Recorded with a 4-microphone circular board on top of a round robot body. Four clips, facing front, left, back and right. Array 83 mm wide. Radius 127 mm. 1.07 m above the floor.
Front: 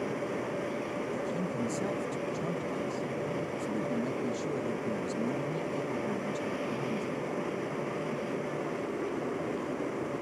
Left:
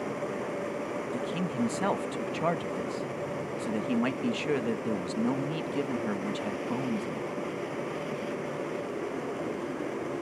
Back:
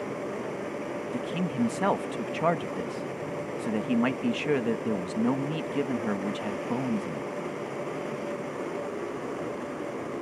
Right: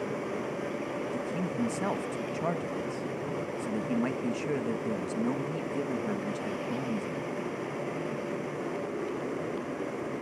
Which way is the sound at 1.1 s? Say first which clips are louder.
Left 2 dB, back 3 dB; 165° left.